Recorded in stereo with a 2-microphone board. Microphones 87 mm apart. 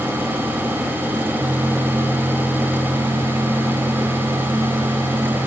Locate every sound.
Only background noise.